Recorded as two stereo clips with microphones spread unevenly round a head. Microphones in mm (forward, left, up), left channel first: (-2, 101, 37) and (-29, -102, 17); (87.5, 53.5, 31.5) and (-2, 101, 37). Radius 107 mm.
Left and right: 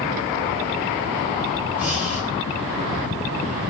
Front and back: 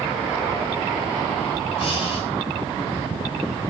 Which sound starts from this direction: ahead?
Breathing, at 1.8 s.